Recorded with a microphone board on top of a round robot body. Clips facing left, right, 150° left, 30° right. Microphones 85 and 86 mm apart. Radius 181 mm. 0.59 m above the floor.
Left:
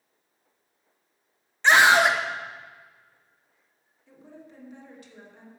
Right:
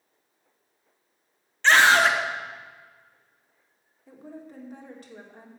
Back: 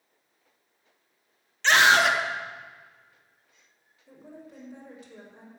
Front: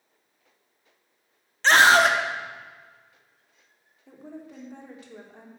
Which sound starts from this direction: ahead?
A scream, at 1.6 s.